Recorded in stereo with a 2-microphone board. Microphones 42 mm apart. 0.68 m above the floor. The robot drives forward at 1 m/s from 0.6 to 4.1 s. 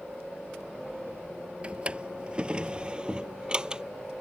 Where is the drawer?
30° right (ahead or behind); by 3.8 s 20° right (ahead or behind).